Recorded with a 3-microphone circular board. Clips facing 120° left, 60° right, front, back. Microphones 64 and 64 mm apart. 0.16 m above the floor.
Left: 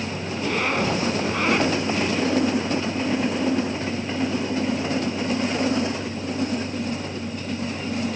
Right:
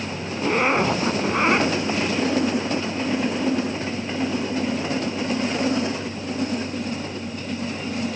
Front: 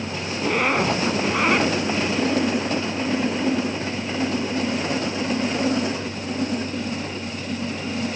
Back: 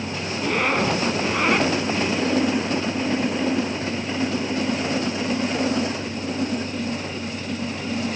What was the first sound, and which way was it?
A zipper, 80° right.